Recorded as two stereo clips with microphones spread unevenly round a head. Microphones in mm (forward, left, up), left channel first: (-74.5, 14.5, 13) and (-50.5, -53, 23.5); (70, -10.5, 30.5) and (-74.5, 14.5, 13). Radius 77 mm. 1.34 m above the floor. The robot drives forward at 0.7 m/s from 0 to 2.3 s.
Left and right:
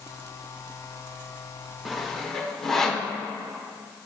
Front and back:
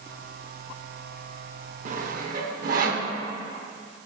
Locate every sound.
1.9 s sawing: 160° right, 0.8 m; by 3.1 s 170° right, 1.1 m